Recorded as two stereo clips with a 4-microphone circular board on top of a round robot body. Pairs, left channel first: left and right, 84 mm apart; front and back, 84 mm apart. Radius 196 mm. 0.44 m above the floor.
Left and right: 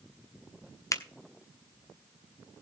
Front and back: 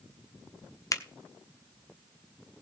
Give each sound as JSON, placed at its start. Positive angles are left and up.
{"t": 0.9, "sound": "a finger snap", "azimuth_deg": 45, "distance_m": 1.3}